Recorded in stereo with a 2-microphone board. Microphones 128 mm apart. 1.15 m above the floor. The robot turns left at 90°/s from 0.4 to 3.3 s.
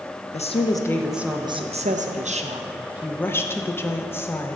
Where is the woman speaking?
60° left, 0.6 m; by 4.6 s 160° left, 0.6 m.